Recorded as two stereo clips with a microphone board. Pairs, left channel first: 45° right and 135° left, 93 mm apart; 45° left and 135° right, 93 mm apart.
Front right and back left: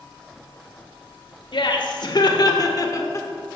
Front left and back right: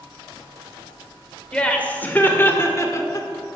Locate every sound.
1.5 s laughter: 35° right, 1.6 m; by 3.3 s 5° left, 1.2 m